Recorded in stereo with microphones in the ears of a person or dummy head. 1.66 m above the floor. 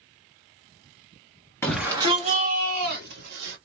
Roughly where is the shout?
Centre.